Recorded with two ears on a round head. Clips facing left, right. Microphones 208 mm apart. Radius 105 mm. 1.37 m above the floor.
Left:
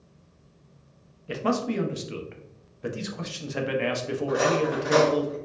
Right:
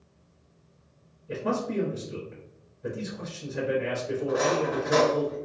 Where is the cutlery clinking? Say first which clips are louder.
Left 2 dB; 45° left (ahead or behind), 1.2 m.